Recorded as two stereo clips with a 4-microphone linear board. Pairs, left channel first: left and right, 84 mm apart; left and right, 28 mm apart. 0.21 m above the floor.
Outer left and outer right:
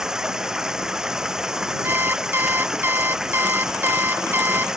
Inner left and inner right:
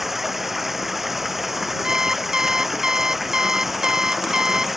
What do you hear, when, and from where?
0.0 s running water: 5° right (ahead or behind)
1.8 s an alarm clock: 25° right (ahead or behind)